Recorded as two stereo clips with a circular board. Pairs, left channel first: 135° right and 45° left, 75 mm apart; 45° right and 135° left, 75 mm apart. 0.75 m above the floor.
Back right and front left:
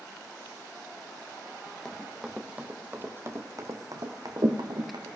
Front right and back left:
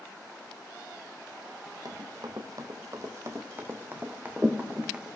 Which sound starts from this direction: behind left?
Running footsteps, at 1.9 s.